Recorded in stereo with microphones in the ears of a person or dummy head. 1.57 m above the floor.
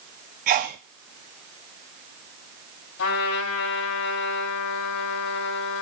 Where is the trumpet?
75° left (ahead or behind), 2.5 m.